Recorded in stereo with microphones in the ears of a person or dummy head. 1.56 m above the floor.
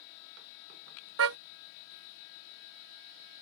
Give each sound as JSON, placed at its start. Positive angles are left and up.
{"t": 1.2, "sound": "a car horn", "side_deg": -75}